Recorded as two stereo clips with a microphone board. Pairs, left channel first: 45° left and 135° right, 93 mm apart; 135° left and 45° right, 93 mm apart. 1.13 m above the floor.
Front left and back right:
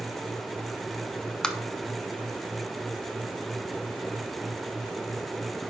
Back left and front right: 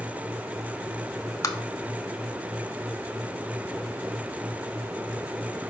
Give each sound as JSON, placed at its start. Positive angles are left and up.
{"t": 1.4, "sound": "tapping", "azimuth_deg": 120, "distance_m": 0.6}